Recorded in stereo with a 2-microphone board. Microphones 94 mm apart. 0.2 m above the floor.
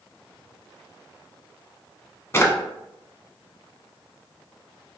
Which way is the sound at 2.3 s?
30° left (ahead or behind).